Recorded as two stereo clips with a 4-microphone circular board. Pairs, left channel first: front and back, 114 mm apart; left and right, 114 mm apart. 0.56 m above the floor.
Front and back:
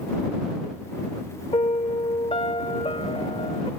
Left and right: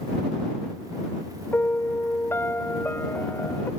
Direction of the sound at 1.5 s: 20° left.